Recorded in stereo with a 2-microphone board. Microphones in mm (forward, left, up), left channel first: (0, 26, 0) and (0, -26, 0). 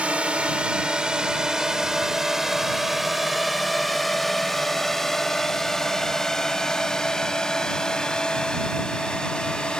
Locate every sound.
0.0 s a drone: 25° right (ahead or behind); by 9.8 s 15° left (ahead or behind)